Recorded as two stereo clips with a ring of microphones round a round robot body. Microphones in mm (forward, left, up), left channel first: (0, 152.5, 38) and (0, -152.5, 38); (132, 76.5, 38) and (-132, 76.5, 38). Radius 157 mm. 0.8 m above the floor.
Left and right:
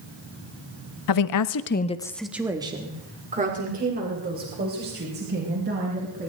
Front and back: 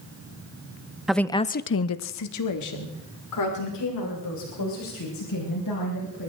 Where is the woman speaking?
90° left, 1.0 m; by 6.3 s 35° right, 5.5 m.